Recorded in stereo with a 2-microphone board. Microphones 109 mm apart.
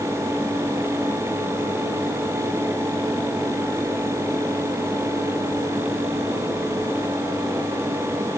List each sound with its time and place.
Only background noise.